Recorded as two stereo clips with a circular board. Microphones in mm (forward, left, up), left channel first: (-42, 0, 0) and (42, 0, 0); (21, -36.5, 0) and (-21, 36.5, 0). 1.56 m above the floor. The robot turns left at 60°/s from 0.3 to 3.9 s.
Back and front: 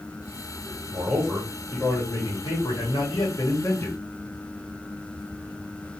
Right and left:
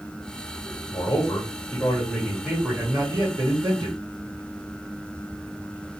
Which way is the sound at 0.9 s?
70° right.